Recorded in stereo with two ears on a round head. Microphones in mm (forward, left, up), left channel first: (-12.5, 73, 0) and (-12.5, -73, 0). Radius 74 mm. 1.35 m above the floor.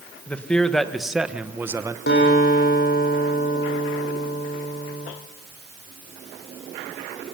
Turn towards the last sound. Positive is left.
turn(degrees=60)  # may be behind; listen again after turning